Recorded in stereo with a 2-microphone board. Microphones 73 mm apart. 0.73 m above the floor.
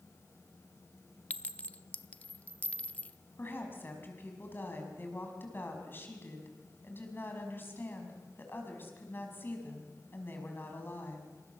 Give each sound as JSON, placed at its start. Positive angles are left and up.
{"t": 1.3, "sound": "a clink", "side_deg": 20, "distance_m": 0.7}
{"t": 3.4, "sound": "a woman speaking", "side_deg": 30, "distance_m": 5.5}